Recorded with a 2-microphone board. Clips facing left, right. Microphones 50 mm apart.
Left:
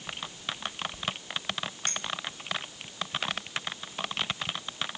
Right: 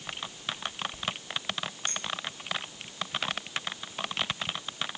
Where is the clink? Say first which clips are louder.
Left 1 dB; 80° left, 2.5 m.